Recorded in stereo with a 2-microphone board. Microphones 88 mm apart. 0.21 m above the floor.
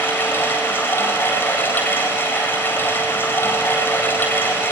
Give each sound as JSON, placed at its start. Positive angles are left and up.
{"t": 0.0, "sound": "running water", "side_deg": 25, "distance_m": 9.0}